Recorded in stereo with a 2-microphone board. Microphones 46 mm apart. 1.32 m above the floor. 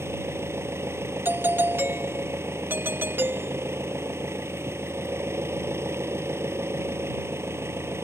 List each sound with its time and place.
0.0 s an engine running: 85° right
1.2 s a doorbell: 60° right (ahead or behind)